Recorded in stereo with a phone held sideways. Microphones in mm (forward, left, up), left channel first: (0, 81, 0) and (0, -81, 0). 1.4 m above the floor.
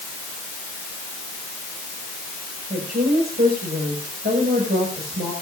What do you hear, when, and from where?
2.7 s a woman speaking: 85° right, 6.5 m